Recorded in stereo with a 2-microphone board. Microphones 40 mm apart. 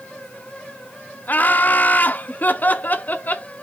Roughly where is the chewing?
I don't hear chewing.